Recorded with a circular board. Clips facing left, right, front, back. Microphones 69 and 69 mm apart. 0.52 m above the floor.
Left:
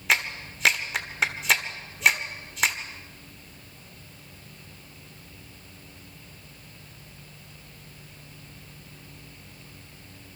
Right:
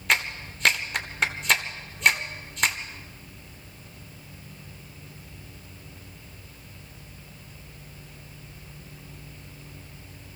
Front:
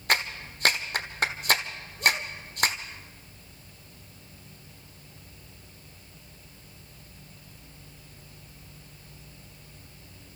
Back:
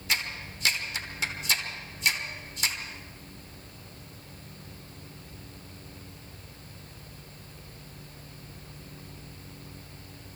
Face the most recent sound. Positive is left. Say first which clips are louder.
# even, front 5 dB
turn(degrees=0)